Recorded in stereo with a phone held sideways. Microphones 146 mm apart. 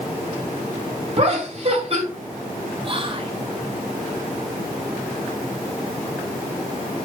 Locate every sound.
1.2 s laughter: 45° right (ahead or behind), 2.5 m
2.8 s whispering: 35° right (ahead or behind), 0.7 m